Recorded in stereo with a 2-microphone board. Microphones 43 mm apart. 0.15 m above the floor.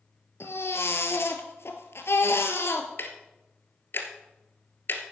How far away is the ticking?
About 1.4 m.